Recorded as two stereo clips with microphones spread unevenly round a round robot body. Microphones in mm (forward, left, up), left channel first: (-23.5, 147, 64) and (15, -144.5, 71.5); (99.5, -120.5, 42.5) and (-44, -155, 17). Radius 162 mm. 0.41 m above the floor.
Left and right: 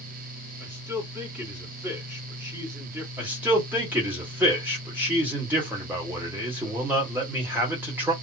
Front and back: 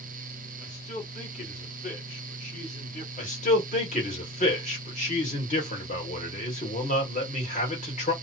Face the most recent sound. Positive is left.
turn(degrees=0)